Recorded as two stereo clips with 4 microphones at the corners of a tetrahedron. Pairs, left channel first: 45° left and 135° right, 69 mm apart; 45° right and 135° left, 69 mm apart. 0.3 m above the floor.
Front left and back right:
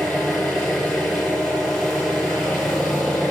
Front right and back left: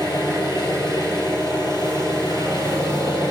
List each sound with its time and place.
0.0 s an engine running: 50° right, 6.5 m